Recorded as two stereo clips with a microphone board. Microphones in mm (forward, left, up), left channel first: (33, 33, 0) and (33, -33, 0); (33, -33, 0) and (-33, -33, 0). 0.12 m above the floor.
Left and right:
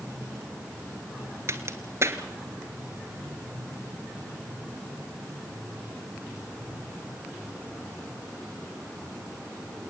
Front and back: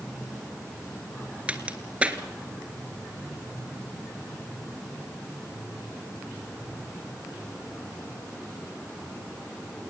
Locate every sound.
1.5 s a crack: 115° right, 1.4 m